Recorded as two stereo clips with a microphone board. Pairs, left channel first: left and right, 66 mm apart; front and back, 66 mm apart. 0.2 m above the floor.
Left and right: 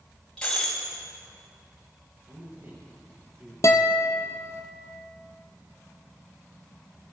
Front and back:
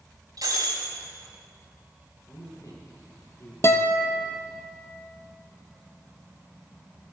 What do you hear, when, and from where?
0.4 s breaking glass: 170° left, 4.5 m
2.3 s a man speaking: 45° right, 4 m
3.6 s a guitar: 50° left, 0.9 m